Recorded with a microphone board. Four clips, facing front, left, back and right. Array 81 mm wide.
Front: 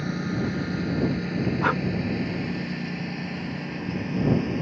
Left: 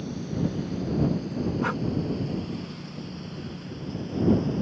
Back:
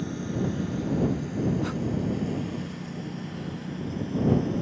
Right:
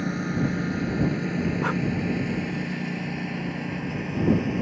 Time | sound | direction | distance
0.0 | a lawn mower | 60° right | ?
1.6 | breathing | straight ahead | ?